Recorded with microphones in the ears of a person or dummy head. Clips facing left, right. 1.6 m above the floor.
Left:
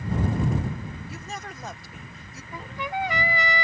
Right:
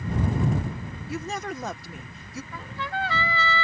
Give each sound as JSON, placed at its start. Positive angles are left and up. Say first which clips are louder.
{"t": 1.1, "sound": "a woman speaking", "louder": "right 7 dB", "side_deg": -60}
{"t": 2.5, "sound": "a trumpet", "louder": "left 3 dB", "side_deg": 15}